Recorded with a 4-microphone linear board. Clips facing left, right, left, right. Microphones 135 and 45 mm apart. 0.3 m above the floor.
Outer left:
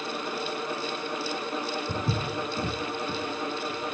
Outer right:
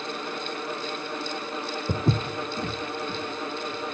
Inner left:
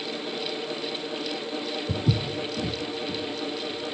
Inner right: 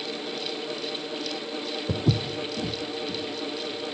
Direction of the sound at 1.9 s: 65° right (ahead or behind).